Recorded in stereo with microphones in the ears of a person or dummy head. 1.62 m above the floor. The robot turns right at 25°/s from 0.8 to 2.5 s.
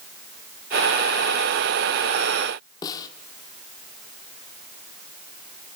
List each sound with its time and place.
2.8 s a snare drum: 20° left (ahead or behind), 1.7 m